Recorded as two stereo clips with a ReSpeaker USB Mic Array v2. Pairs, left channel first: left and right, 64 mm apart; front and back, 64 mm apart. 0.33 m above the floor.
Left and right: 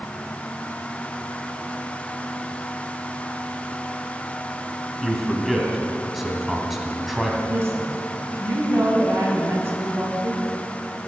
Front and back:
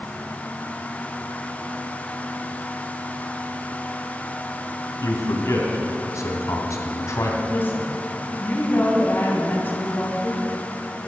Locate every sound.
5.0 s a man speaking: 5° right, 1.8 m
7.5 s a woman speaking: 50° right, 2.5 m